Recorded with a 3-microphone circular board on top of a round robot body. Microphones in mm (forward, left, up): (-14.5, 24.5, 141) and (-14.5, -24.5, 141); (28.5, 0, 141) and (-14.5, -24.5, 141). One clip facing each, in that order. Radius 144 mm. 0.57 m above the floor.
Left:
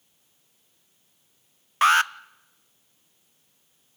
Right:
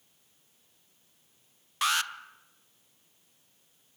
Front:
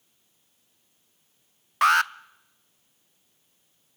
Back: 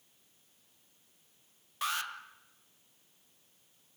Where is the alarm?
45° left, 0.7 m.